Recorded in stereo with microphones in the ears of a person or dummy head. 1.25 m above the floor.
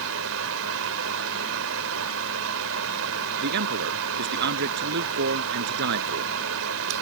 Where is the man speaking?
55° right (ahead or behind).